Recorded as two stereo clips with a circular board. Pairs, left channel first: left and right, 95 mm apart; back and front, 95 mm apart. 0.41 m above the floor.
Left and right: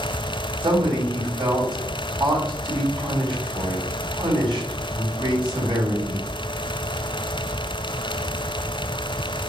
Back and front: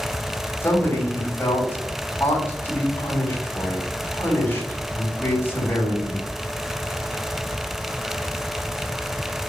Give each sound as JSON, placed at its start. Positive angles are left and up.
{"t": 0.6, "sound": "a man speaking", "azimuth_deg": -115, "distance_m": 3.0}